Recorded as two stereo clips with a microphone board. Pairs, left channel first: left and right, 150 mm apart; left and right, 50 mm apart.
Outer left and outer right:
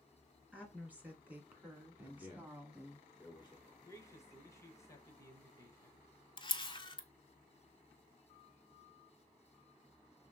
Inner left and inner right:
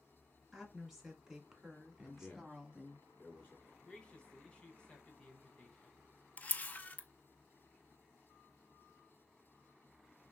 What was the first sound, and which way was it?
A woman speaking, 10° right (ahead or behind).